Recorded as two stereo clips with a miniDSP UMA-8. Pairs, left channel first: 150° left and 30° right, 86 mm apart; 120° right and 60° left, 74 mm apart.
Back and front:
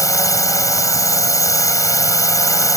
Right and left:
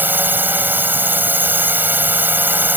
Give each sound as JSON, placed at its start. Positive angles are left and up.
{"t": 0.0, "sound": "a drone", "azimuth_deg": 115}